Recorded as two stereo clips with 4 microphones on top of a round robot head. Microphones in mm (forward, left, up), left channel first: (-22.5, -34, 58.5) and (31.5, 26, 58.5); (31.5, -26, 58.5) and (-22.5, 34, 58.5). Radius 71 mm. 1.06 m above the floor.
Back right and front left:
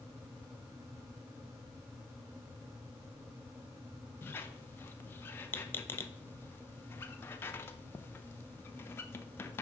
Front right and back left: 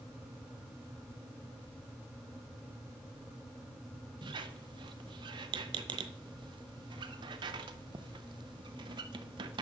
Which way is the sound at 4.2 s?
160° left.